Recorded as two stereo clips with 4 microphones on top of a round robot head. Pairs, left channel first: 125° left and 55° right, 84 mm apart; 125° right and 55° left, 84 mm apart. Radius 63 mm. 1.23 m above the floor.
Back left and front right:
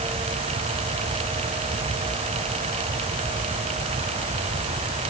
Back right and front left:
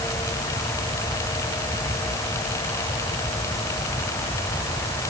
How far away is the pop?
No pop in this recording.